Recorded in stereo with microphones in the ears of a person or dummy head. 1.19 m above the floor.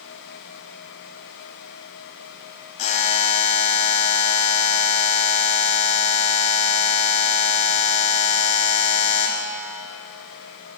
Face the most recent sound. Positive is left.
turn(degrees=40)  # may be behind; listen again after turning